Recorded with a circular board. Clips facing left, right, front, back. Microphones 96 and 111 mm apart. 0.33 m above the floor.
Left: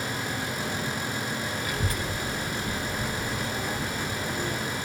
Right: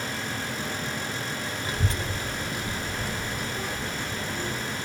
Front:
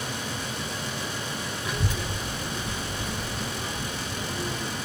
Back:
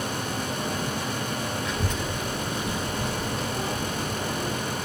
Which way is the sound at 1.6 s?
70° right.